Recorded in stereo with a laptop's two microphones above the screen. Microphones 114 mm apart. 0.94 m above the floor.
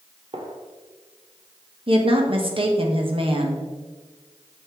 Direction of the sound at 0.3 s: 55° right (ahead or behind).